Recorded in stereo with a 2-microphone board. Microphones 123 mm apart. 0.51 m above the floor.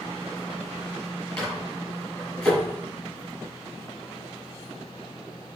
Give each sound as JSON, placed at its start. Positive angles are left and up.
{"t": 1.4, "sound": "a microwave", "side_deg": 10, "distance_m": 6.5}